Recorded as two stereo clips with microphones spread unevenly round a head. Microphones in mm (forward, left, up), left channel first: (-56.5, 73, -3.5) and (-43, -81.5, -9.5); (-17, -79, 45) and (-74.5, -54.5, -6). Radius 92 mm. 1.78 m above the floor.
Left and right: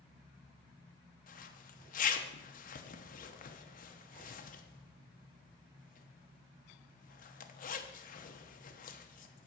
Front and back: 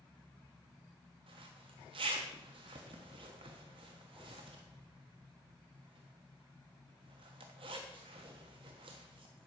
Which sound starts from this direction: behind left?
A zipper, at 1.3 s.